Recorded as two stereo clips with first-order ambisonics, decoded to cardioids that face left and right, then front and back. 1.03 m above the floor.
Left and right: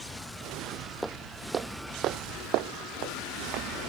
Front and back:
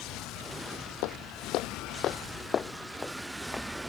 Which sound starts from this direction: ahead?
Footsteps, at 1.0 s.